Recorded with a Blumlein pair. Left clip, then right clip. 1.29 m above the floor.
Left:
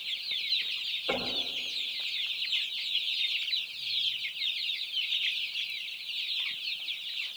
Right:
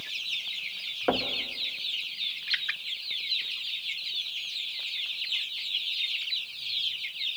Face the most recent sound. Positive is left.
turn(degrees=-40)